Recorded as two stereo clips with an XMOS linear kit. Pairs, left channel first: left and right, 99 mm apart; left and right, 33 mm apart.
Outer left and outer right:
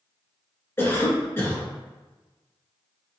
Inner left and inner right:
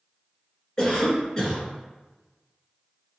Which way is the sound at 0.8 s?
25° left (ahead or behind).